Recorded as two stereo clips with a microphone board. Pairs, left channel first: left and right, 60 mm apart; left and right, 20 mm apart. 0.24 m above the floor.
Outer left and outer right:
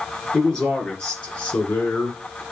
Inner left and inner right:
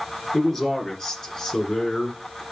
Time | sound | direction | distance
0.3 | a man speaking | 10° left (ahead or behind) | 3.5 m